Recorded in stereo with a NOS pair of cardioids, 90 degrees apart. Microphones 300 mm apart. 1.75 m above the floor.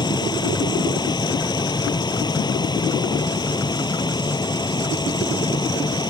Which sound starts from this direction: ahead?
A machine running, at 0.0 s.